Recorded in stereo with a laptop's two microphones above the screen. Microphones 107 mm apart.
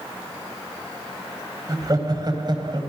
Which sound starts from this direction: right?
Laughter, at 1.7 s.